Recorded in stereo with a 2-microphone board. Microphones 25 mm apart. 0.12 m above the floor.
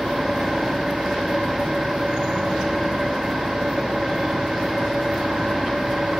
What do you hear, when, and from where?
0.0 s an engine running: 25° right (ahead or behind), 5 m